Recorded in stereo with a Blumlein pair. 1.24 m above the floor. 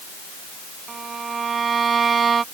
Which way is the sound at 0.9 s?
20° right.